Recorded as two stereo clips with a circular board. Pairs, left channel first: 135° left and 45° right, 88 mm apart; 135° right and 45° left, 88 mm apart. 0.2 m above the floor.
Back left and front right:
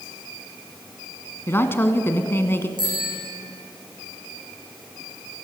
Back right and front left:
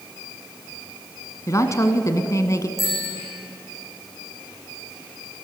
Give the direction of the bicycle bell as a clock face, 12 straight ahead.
3 o'clock.